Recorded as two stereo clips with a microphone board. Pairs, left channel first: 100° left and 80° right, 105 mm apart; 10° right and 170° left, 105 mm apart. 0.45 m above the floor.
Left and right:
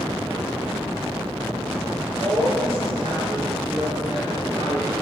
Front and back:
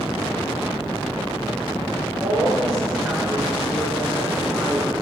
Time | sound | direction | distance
2.2 | a woman speaking | 115° right | 6 m